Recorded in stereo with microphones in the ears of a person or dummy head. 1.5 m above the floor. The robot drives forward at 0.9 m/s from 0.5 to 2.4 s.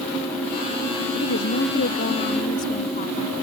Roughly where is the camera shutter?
I don't hear a camera shutter.